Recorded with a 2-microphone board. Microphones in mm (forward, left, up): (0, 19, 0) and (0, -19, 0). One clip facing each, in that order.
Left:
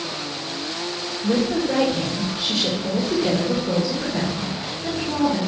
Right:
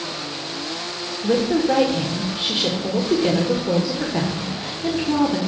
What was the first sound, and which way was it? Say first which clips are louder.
A woman speaking: right 3 dB; 30° right (ahead or behind).